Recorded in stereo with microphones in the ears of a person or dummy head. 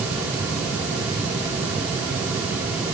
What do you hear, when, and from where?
Only background noise.